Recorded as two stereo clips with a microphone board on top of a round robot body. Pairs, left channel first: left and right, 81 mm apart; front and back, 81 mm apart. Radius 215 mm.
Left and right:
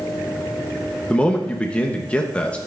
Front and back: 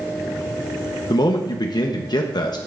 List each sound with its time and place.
1.1 s a man speaking: 15° left, 0.9 m